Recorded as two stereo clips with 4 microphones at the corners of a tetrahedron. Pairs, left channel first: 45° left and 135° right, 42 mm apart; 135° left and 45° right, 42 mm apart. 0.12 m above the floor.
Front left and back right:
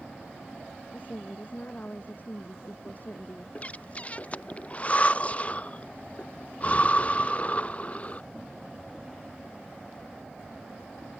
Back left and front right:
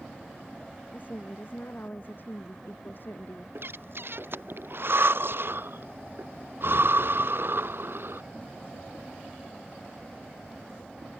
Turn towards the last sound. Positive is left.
turn(degrees=-15)